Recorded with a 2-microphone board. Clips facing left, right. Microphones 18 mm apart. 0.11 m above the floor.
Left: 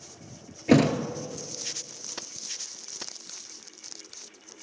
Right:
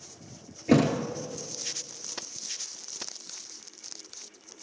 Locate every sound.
0.7 s a thud: 25° left (ahead or behind), 0.7 m